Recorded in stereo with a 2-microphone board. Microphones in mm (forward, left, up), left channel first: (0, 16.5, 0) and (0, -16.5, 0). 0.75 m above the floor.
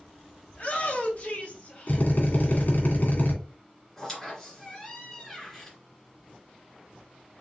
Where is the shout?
40° left (ahead or behind), 3 m; by 2.7 s 10° left (ahead or behind), 1.8 m.